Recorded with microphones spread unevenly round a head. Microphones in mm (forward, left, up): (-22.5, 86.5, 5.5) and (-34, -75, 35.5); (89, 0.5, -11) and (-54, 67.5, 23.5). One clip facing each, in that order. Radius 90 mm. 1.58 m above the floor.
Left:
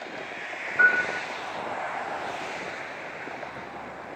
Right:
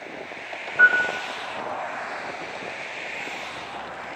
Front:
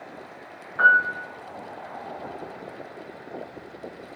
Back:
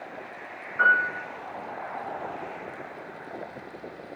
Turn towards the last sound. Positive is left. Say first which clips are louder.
# right 3 dB, front 3 dB
turn(degrees=-20)